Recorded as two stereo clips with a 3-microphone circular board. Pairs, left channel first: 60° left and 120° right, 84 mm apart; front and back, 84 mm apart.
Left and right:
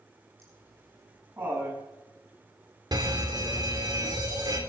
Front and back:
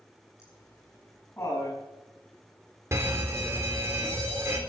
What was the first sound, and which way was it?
Laughter, 55° right.